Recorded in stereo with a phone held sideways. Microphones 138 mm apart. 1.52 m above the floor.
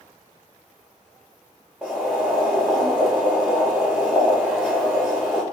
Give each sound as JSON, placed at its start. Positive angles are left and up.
{"t": 1.8, "sound": "boiling", "side_deg": -5, "distance_m": 0.9}